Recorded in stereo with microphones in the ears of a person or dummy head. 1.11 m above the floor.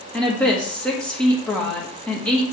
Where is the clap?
No clap in this recording.